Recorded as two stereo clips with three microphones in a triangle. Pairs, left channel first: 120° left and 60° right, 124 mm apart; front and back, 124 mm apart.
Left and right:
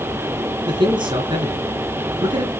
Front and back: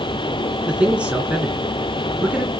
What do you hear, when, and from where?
0.7 s a man speaking: 100° right, 2 m